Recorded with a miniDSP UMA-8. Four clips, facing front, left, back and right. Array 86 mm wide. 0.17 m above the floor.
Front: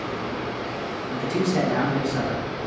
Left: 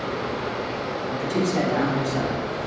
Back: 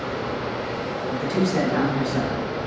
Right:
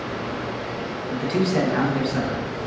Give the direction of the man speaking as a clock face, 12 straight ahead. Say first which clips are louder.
Right 2 dB, back 1 dB; 3 o'clock.